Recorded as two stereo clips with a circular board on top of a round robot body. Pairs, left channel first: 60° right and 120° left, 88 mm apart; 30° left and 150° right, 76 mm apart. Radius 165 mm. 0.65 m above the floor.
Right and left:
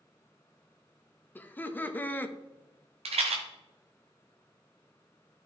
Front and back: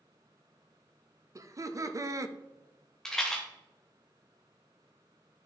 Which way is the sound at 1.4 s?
125° right.